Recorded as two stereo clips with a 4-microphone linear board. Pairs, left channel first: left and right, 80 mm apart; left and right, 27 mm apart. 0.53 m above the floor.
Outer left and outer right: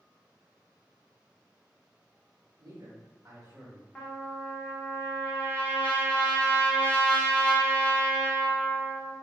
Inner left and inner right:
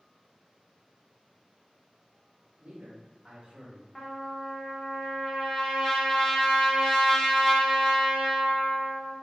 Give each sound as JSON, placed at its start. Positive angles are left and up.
{"t": 2.6, "sound": "a man speaking", "side_deg": -45, "distance_m": 1.2}
{"t": 4.0, "sound": "a trumpet", "side_deg": 20, "distance_m": 1.0}